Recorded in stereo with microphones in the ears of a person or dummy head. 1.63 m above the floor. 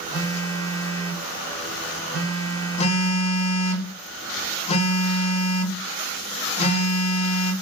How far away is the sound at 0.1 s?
About 1.2 m.